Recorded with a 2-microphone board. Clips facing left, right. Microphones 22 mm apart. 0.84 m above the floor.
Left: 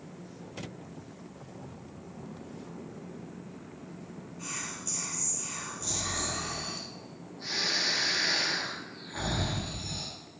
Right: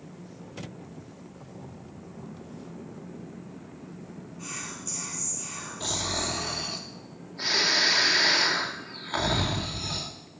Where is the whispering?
5° right (ahead or behind), 1.8 m.